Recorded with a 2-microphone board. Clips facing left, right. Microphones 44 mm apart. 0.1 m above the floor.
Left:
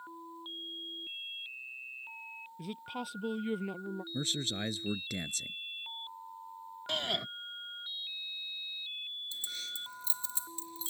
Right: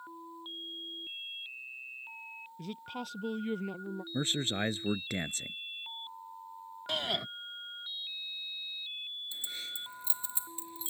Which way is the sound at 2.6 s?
10° left (ahead or behind).